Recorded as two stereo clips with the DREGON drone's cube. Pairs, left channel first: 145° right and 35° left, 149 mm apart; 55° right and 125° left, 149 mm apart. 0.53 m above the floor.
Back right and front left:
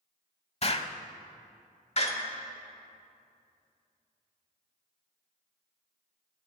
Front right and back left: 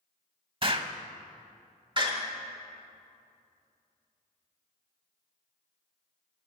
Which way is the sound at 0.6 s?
175° left.